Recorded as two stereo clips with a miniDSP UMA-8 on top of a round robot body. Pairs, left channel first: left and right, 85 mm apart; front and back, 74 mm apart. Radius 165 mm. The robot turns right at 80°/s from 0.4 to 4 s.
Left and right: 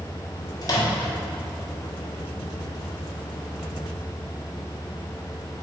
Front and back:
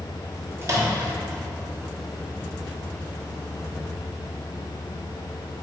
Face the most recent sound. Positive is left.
turn(degrees=40)